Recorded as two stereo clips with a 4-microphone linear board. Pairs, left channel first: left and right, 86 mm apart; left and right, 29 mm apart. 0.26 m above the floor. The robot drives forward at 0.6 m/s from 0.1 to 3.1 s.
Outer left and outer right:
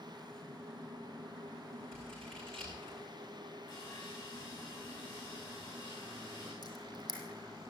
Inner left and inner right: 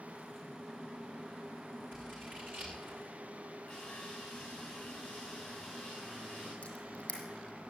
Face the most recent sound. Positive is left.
turn(degrees=45)  # may be behind; listen again after turning